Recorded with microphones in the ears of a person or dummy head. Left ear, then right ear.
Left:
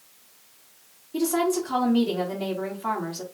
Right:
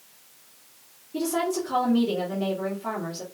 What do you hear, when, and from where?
1.1 s a woman speaking: 25° left (ahead or behind), 1.9 m